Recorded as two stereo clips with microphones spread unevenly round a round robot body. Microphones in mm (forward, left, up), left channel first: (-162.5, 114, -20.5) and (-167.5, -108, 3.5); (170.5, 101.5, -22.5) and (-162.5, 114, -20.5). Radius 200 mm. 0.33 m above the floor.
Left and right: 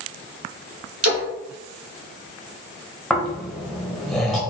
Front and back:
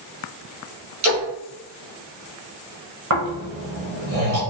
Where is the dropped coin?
I don't hear a dropped coin.